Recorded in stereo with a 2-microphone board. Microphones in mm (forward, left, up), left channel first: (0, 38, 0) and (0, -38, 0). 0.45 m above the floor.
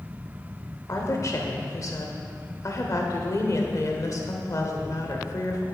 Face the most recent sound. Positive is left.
turn(degrees=45)  # may be behind; listen again after turning